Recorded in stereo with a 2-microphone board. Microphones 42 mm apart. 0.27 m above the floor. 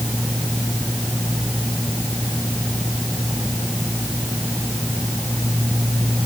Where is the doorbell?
I don't hear a doorbell.